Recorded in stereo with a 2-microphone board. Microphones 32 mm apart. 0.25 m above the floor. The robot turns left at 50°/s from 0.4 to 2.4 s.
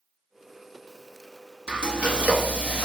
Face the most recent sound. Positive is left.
turn(degrees=-55)